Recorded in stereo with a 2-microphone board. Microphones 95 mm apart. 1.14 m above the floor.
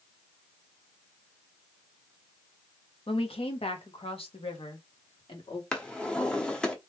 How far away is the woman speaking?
About 1.2 m.